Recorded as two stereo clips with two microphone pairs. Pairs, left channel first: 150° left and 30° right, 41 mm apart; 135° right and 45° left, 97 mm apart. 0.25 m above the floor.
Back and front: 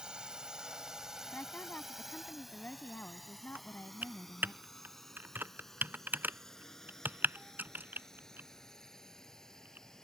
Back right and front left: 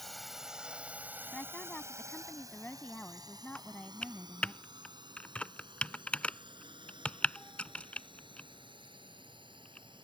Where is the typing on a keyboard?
60° right.